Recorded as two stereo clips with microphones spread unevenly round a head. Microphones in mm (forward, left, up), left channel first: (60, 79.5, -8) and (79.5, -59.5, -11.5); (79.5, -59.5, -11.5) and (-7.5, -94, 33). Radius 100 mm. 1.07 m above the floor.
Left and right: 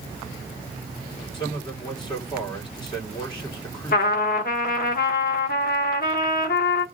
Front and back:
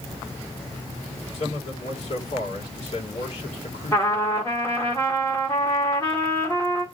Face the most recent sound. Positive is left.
turn(degrees=110)